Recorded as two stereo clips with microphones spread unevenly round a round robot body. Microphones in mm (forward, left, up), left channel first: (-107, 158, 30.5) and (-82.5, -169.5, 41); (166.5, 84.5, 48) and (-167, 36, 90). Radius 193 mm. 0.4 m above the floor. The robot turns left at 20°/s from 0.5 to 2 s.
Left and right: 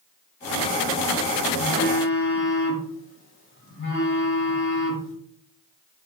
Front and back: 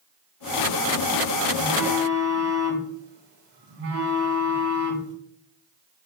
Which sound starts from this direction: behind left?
A phone buzzing, at 1.6 s.